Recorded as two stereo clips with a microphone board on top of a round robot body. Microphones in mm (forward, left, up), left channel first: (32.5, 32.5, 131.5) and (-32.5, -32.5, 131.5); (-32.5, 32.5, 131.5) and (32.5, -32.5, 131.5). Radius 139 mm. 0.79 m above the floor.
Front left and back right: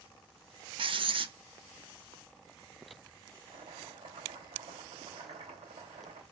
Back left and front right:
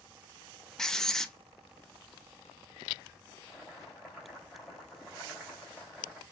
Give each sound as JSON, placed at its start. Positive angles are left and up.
{"t": 0.8, "sound": "writing", "azimuth_deg": -140, "distance_m": 0.7}
{"t": 3.5, "sound": "boiling", "azimuth_deg": -140, "distance_m": 2.5}